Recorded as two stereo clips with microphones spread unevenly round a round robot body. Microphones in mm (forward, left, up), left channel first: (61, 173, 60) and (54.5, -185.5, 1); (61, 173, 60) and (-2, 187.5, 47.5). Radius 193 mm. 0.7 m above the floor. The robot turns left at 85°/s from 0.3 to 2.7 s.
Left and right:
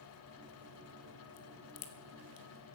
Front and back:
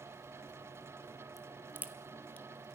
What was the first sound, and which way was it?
A crack, 145° left.